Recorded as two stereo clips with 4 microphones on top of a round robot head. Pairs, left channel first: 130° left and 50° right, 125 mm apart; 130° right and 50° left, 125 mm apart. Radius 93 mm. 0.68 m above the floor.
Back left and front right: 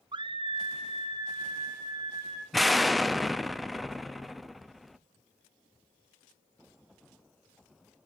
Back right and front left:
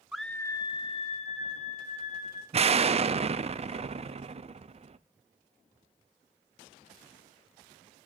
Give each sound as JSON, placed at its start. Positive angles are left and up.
{"t": 0.1, "sound": "a scream", "azimuth_deg": -30, "distance_m": 0.6}
{"t": 2.5, "sound": "an explosion", "azimuth_deg": 40, "distance_m": 0.5}